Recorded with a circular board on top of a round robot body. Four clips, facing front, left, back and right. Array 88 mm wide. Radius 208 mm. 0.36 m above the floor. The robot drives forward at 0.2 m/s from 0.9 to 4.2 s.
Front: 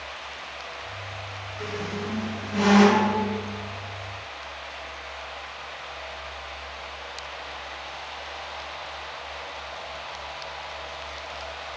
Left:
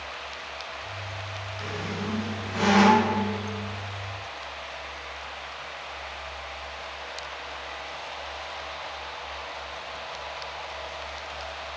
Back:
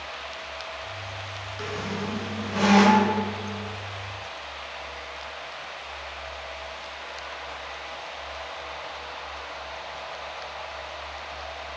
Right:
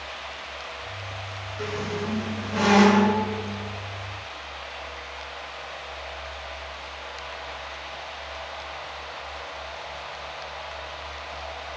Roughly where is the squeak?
Behind right.